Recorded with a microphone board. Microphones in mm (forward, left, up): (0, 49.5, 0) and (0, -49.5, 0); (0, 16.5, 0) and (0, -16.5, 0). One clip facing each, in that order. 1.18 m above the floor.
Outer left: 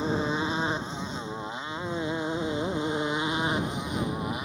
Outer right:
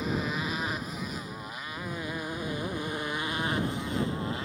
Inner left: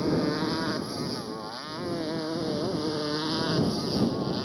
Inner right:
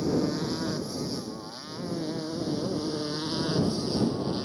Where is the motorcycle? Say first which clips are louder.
Outer left 4 dB, inner left 1 dB; 30° left (ahead or behind); by 4.4 s 15° left (ahead or behind).